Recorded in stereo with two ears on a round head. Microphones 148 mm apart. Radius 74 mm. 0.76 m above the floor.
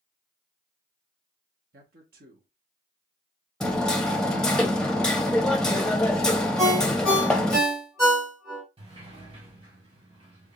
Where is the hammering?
5° left (ahead or behind), 0.7 m.